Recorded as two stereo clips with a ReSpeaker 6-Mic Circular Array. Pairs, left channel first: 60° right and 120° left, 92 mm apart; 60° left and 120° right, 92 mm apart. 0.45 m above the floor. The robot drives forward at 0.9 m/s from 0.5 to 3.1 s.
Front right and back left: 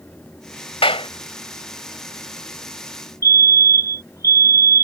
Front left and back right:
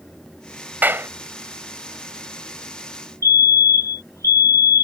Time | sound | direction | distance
0.8 | a clap | 50° right | ?
3.2 | a fire alarm | 85° left | ?